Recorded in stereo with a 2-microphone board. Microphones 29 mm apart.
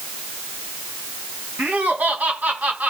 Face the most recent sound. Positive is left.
turn(degrees=-70)  # may be behind; listen again after turning